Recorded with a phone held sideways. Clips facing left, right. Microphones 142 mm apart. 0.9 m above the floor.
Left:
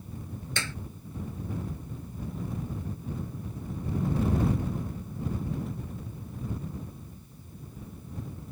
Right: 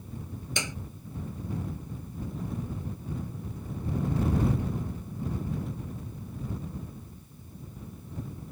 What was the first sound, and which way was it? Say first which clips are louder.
A clap: right 2 dB; 15° right (ahead or behind).